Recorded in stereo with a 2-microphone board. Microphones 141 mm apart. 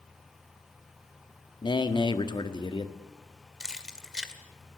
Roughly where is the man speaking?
Left.